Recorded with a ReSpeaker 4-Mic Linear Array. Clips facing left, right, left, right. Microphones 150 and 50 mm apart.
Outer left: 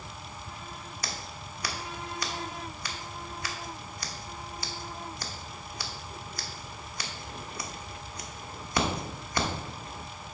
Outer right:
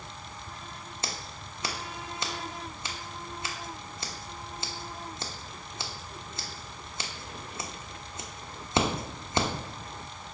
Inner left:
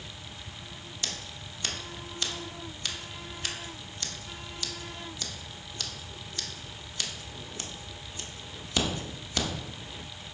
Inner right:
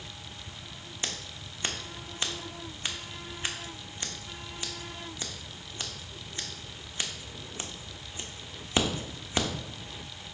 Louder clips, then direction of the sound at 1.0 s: Outer right 1 dB, inner right 1 dB; 25° right (ahead or behind).